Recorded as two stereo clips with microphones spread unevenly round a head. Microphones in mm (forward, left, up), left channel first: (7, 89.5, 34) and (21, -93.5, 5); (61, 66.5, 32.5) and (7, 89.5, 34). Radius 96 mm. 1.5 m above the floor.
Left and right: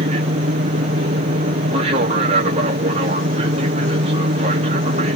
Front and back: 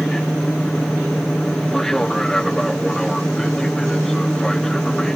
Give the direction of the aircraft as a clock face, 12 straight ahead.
3 o'clock.